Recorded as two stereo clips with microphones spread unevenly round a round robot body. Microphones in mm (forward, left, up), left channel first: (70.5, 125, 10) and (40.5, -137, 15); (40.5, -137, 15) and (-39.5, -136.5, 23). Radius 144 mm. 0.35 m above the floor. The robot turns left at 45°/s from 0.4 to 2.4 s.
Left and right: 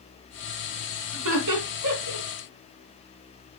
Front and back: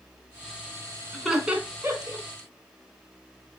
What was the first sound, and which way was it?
Laughter, 85° right.